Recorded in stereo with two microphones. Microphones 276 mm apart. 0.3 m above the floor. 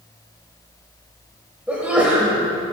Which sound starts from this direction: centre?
A sneeze, at 1.7 s.